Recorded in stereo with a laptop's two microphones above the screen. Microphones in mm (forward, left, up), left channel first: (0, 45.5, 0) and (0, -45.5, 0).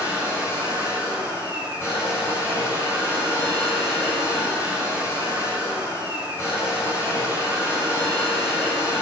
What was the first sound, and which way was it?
A machine running, 30° left (ahead or behind).